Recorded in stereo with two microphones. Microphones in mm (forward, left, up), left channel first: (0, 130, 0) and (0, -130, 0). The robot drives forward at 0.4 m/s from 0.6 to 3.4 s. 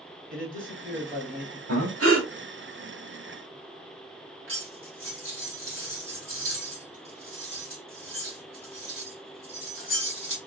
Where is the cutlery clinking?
55° right (ahead or behind), 2.0 m.